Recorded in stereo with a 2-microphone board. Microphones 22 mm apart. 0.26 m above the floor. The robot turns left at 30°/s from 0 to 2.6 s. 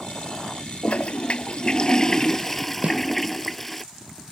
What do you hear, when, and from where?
0.8 s a toilet flushing: 65° left; by 3.8 s 10° left
2.8 s a snare drum: 75° right (ahead or behind)